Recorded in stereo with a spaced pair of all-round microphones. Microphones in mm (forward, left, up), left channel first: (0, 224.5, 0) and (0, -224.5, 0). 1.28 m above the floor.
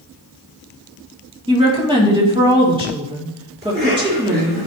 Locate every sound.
1.5 s a woman speaking: 10° right (ahead or behind), 2.5 m
3.6 s a cough: 25° right (ahead or behind), 4 m